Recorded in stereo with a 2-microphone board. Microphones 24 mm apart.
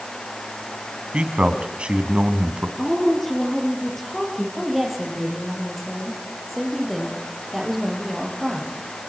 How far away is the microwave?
I don't hear a microwave.